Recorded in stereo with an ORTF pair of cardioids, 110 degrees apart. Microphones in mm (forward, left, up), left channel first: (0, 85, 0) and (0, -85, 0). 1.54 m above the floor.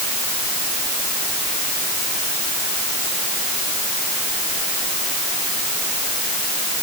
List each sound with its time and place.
Only background noise.